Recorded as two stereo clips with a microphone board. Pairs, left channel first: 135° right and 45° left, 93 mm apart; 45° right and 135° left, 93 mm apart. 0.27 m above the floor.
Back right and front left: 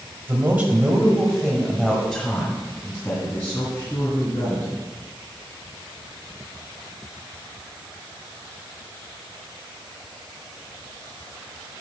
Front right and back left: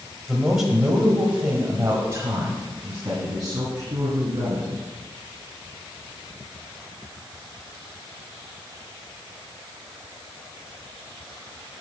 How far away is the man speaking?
About 1.4 m.